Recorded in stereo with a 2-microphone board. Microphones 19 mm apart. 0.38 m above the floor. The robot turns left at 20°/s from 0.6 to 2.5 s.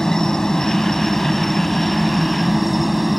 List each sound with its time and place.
0.0 s a helicopter: 35° left; by 3.2 s straight ahead